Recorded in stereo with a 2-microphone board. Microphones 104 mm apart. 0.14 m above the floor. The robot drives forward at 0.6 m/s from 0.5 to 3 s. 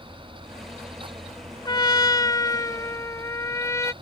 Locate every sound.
1.6 s a trumpet: 45° left (ahead or behind); by 3.9 s 30° left (ahead or behind)